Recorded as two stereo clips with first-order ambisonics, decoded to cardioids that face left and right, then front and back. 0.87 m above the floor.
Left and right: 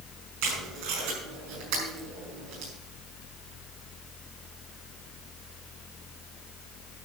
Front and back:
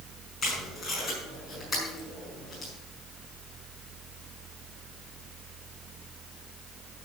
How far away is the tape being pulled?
About 6.5 m.